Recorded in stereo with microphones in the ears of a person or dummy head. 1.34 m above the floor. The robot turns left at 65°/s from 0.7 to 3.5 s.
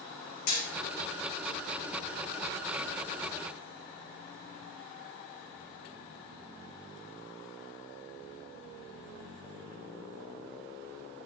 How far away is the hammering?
About 1.8 m.